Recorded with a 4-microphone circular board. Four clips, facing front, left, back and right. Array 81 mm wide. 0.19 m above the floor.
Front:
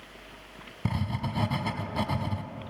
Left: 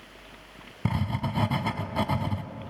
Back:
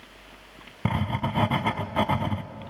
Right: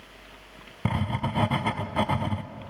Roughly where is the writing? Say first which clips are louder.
Right 1 dB, back 5 dB; behind right.